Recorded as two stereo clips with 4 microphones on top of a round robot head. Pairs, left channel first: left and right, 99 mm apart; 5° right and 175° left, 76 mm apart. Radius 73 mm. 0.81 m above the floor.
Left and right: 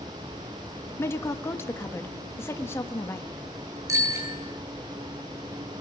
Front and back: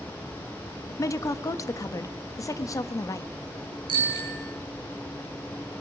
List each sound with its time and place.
1.0 s a woman speaking: 25° left, 1.2 m
3.9 s a bicycle bell: 145° right, 9.5 m